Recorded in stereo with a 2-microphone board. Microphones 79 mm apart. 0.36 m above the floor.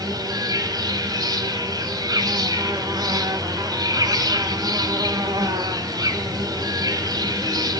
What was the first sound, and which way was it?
An insect, 55° right (ahead or behind).